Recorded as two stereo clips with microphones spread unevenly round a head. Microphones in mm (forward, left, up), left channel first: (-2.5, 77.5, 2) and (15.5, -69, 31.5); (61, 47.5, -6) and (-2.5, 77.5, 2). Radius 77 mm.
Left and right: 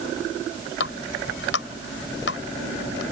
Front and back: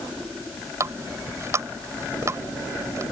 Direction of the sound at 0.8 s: 110° left.